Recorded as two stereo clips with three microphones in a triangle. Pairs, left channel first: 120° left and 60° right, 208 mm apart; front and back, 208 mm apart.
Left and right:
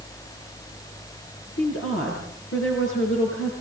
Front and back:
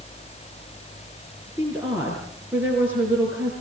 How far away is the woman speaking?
About 5.5 m.